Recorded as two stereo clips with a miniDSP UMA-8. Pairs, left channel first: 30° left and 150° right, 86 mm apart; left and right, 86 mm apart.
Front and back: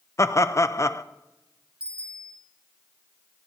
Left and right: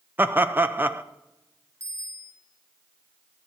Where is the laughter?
25° right, 0.7 m.